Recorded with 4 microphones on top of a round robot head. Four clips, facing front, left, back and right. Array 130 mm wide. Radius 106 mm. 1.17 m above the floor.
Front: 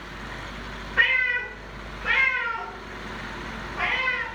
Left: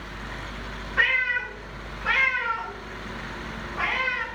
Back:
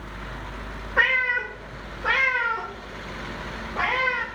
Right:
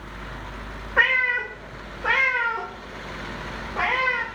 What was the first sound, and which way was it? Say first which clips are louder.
A cat meowing: right 3 dB, back 2 dB; 125° right.